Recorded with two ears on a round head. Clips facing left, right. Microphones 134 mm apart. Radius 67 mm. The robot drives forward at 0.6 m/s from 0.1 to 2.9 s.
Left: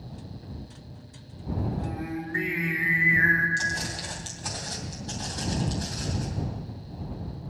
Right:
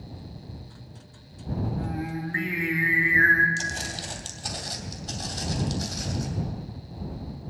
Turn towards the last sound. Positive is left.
turn(degrees=-60)  # may be behind; listen again after turning